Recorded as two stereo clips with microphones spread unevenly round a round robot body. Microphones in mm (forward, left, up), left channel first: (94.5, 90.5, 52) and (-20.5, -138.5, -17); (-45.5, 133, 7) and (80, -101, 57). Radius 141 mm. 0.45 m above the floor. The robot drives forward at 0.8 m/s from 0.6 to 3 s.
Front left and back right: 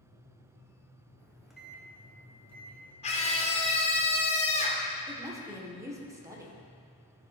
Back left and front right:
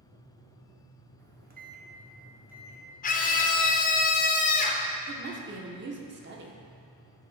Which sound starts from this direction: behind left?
A scream, at 3.0 s.